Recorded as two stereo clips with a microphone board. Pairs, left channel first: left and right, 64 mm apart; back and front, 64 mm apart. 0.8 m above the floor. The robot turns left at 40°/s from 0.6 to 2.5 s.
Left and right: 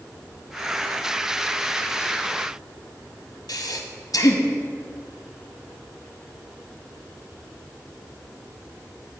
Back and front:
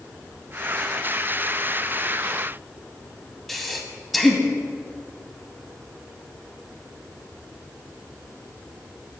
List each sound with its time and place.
3.5 s breathing: 90° left, 0.6 m